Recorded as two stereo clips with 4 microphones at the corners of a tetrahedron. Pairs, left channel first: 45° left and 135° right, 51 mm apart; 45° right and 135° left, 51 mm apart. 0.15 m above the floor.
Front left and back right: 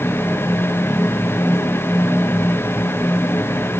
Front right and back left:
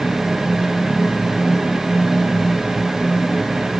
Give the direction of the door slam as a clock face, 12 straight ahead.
I don't hear a door slam.